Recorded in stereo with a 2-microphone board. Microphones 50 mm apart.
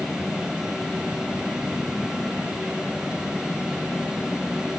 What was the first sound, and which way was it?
Only background noise.